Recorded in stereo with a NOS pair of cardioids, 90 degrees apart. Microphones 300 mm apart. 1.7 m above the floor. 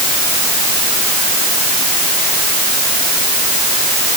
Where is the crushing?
I don't hear crushing.